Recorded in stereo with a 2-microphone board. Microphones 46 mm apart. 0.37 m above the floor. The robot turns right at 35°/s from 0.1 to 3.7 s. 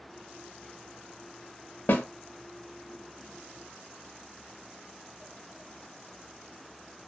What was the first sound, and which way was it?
A snare drum, 45° left (ahead or behind).